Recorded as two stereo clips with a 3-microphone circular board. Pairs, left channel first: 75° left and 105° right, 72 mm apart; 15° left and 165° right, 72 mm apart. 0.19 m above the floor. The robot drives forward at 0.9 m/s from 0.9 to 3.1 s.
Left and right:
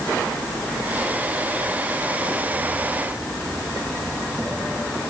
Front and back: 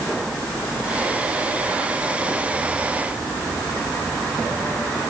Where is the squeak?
I don't hear a squeak.